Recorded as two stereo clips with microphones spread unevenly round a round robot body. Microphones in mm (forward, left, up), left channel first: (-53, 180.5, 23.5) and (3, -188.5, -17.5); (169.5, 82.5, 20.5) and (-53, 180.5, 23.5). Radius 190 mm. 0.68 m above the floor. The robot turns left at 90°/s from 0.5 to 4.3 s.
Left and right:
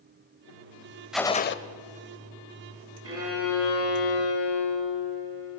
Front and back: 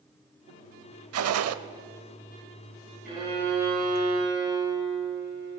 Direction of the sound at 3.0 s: 135° right.